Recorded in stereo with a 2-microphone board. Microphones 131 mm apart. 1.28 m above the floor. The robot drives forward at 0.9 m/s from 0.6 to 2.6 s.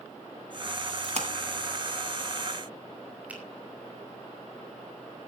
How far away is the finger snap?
About 5.5 m.